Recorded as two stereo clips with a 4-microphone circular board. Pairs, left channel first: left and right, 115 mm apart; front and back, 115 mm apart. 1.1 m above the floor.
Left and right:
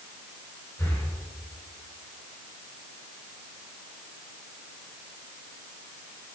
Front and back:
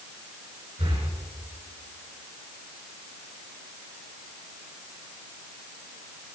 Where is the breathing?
155° left, 5 m.